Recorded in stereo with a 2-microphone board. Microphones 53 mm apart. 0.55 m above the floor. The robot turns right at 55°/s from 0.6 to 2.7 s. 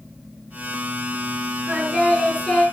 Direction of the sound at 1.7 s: 35° right.